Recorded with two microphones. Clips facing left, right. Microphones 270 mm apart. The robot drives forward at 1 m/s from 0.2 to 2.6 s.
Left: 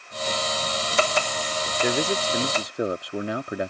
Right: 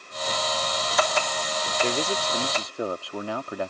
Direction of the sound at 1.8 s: 15° left (ahead or behind).